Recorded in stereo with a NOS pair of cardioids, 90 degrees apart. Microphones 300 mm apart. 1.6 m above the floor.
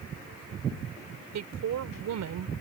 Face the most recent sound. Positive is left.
turn(degrees=-65)